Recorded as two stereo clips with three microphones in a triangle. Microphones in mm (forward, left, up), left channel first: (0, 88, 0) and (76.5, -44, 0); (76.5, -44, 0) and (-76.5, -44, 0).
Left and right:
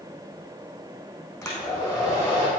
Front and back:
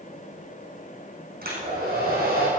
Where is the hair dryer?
170° right, 4.5 m.